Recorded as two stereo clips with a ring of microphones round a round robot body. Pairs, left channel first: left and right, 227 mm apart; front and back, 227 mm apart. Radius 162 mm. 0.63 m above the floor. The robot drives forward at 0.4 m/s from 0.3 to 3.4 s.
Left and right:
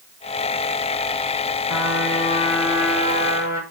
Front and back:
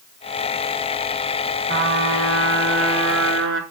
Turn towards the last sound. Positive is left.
turn(degrees=155)